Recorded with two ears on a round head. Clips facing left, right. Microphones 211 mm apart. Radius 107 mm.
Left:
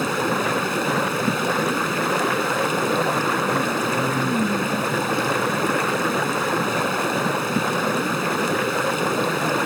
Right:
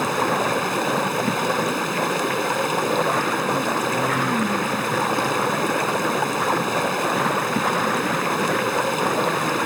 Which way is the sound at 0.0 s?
5° left (ahead or behind).